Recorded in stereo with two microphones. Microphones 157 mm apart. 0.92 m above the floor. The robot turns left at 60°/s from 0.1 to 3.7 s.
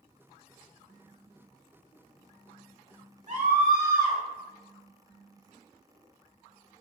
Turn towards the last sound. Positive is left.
turn(degrees=-65)  # may be behind; listen again after turning